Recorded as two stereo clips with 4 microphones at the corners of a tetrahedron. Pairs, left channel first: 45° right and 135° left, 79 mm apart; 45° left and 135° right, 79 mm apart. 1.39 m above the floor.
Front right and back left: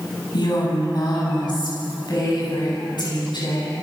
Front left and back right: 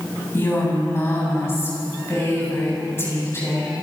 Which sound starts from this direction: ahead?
A woman speaking, at 0.3 s.